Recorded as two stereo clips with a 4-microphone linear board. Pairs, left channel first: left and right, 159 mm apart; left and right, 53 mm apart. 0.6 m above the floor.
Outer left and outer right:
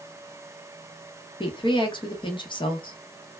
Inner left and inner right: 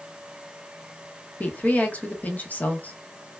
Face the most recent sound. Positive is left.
turn(degrees=30)  # may be behind; listen again after turning